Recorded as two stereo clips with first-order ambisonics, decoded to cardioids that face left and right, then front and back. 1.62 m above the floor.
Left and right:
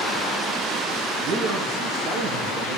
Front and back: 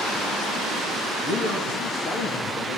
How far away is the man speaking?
About 3 m.